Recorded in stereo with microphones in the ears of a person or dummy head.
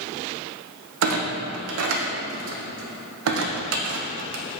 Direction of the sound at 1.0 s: 65° right (ahead or behind).